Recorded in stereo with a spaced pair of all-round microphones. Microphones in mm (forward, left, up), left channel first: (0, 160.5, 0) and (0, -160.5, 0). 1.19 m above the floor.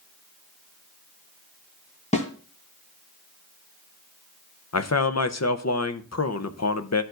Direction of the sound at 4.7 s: 55° left (ahead or behind).